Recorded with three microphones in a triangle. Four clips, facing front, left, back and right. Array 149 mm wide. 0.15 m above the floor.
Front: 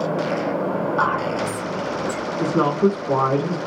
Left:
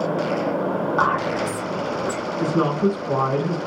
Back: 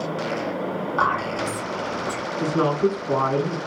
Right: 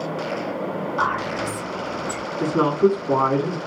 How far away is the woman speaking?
About 1.2 m.